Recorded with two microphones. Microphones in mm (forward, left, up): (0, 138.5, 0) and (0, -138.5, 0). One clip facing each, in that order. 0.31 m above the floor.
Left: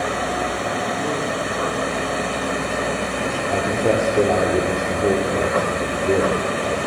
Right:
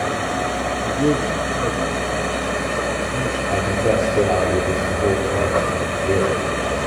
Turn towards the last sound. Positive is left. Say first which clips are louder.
# even
turn(degrees=15)  # may be behind; listen again after turning